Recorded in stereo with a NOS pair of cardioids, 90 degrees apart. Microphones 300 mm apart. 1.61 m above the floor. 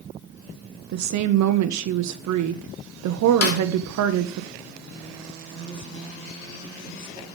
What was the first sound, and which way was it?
A woman speaking, 65° right.